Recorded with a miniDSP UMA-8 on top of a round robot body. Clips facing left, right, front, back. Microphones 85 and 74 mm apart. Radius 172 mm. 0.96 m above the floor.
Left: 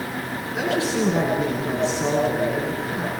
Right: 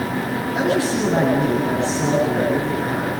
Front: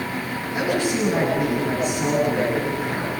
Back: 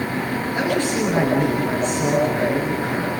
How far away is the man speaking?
About 9.5 m.